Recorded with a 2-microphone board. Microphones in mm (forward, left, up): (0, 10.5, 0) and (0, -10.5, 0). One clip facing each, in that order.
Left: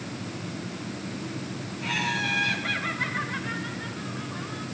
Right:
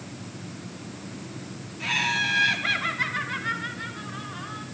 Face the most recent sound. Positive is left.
turn(degrees=-35)  # may be behind; listen again after turning